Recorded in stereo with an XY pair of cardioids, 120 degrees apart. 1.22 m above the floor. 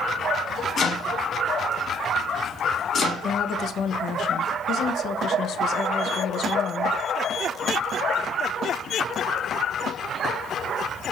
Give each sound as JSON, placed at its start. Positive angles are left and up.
{"t": 0.8, "sound": "chopping", "azimuth_deg": 40, "distance_m": 1.3}
{"t": 3.2, "sound": "a woman speaking", "azimuth_deg": 60, "distance_m": 0.6}